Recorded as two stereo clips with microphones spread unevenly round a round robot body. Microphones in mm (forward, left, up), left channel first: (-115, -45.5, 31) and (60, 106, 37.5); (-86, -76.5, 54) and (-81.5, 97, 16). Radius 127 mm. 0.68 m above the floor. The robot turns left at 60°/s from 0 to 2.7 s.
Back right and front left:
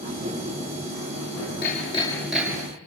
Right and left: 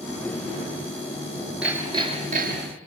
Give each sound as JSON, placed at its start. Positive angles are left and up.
{"t": 1.6, "sound": "hammering", "azimuth_deg": 175, "distance_m": 7.5}